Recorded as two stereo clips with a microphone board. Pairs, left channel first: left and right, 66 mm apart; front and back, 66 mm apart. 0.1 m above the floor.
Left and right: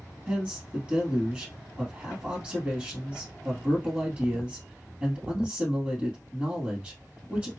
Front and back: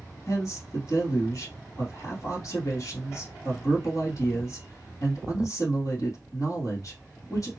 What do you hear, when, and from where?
0.3 s a man speaking: 20° right, 2.5 m